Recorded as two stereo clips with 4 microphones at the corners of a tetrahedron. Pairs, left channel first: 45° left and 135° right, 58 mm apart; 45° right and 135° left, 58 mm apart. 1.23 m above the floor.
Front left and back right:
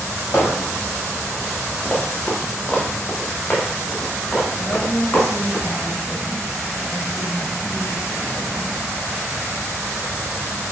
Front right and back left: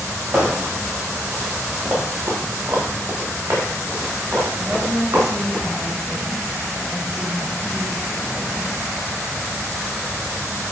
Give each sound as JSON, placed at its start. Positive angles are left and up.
{"t": 0.3, "sound": "hammering", "azimuth_deg": 70, "distance_m": 4.5}
{"t": 1.9, "sound": "running footsteps", "azimuth_deg": 90, "distance_m": 3.0}
{"t": 4.6, "sound": "a woman speaking", "azimuth_deg": 55, "distance_m": 3.0}